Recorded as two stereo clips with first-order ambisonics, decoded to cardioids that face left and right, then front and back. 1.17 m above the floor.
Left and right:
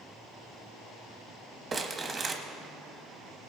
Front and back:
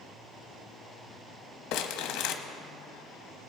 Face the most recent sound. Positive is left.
turn(degrees=-20)